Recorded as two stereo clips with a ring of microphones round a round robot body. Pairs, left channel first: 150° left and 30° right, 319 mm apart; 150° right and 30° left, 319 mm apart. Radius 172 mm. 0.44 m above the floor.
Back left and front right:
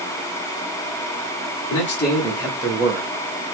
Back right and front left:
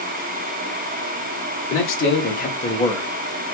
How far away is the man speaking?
About 1.2 m.